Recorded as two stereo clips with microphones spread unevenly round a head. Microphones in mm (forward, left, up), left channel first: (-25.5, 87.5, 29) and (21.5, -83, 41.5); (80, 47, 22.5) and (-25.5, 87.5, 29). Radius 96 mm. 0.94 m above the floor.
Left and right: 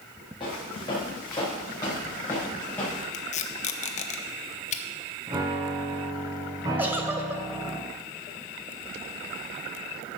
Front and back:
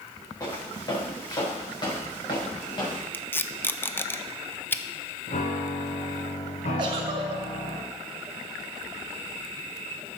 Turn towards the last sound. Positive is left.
turn(degrees=-155)